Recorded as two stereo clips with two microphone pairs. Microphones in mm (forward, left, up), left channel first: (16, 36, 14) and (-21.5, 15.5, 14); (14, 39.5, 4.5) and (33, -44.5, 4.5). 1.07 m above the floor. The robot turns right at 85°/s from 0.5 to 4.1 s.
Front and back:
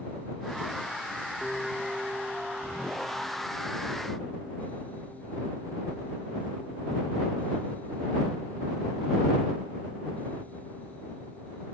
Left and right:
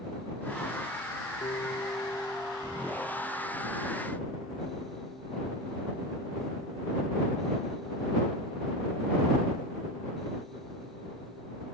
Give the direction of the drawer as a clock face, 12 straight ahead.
I don't hear a drawer.